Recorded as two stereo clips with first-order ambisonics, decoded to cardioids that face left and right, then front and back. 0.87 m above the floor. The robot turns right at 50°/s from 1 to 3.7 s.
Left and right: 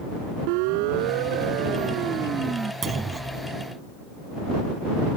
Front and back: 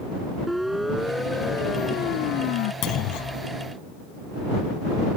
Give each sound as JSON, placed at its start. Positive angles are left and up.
{"t": 0.5, "sound": "a siren", "azimuth_deg": -90}
{"t": 2.8, "sound": "a clunk", "azimuth_deg": -30}